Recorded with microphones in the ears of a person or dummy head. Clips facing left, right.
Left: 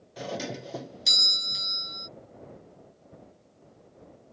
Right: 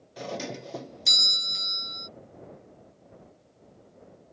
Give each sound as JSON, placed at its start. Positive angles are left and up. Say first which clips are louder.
{"t": 0.2, "sound": "a doorbell", "louder": "even", "side_deg": 5}